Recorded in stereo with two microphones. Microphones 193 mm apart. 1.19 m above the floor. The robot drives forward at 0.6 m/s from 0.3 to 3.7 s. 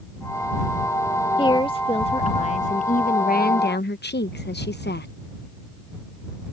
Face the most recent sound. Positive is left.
turn(degrees=60)  # may be behind; listen again after turning